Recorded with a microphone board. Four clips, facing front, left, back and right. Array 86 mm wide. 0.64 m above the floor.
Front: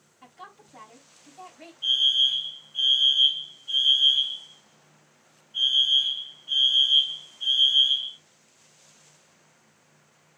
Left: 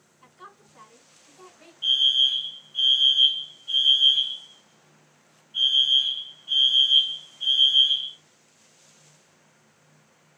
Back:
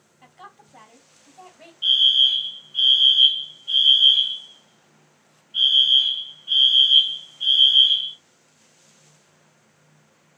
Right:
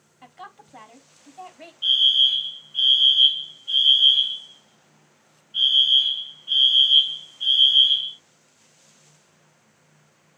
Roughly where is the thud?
I don't hear a thud.